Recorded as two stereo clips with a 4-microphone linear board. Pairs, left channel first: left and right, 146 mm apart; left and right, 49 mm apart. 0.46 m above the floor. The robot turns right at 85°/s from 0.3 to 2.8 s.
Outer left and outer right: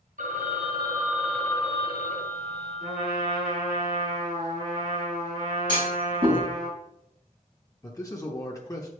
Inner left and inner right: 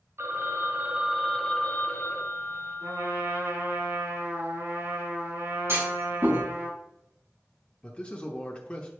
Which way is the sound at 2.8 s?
80° right.